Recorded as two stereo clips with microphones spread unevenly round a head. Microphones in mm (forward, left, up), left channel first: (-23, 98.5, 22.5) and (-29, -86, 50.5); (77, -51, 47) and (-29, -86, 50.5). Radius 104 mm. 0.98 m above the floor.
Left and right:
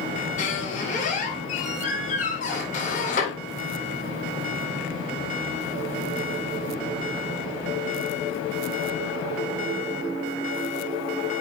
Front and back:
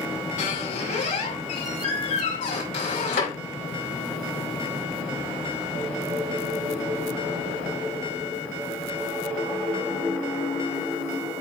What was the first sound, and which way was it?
A squeak, 35° left.